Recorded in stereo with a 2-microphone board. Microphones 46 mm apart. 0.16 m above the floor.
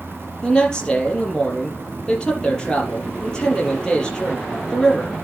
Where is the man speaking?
20° left (ahead or behind), 4.5 m.